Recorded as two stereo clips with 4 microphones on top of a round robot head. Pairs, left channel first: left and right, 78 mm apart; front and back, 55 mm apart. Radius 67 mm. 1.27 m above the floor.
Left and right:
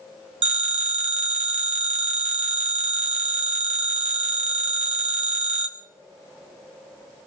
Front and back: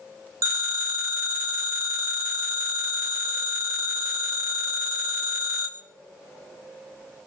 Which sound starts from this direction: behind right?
A phone ringing, at 0.4 s.